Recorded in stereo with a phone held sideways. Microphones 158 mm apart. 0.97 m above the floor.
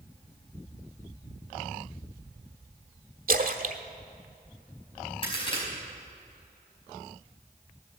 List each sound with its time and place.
3.3 s a splash: 65° right (ahead or behind), 1.0 m
5.2 s a crack: 35° left (ahead or behind), 5 m